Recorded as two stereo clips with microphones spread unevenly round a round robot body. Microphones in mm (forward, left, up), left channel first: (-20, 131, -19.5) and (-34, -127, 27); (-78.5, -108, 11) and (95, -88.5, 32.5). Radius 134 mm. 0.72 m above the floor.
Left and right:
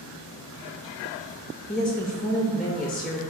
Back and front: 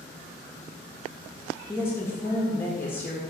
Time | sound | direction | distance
1.7 | a woman speaking | 145° left | 0.5 m